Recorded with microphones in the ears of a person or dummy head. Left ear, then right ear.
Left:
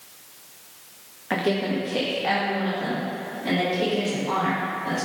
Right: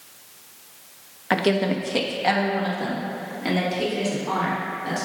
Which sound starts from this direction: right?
A woman speaking, at 1.3 s.